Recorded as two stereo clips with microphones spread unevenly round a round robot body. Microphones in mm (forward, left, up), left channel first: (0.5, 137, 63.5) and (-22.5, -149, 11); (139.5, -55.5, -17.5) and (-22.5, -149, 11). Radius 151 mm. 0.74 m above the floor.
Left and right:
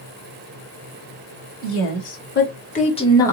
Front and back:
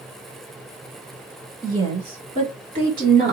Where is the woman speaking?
130° left, 2 m; by 3.3 s 175° left, 1.2 m.